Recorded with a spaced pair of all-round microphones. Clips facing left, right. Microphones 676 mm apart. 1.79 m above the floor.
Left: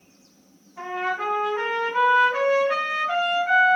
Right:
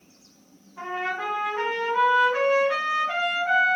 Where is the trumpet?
15° left (ahead or behind), 1.6 m.